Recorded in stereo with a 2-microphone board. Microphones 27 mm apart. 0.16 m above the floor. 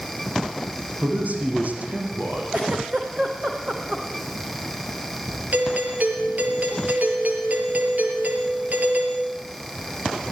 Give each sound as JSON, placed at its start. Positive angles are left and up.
{"t": 1.0, "sound": "a man speaking", "side_deg": -60, "distance_m": 7.5}
{"t": 2.5, "sound": "a giggle", "side_deg": -40, "distance_m": 4.5}
{"t": 5.5, "sound": "a doorbell", "side_deg": -60, "distance_m": 4.5}